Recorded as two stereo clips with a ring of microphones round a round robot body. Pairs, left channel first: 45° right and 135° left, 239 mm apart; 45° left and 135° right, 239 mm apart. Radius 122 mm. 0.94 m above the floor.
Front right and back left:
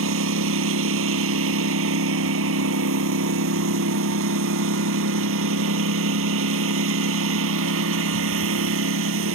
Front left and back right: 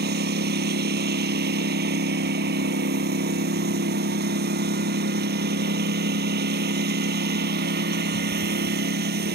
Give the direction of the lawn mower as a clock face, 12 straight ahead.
6 o'clock.